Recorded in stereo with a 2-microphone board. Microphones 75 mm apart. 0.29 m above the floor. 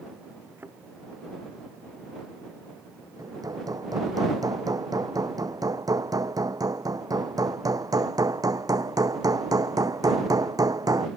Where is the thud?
30° right (ahead or behind).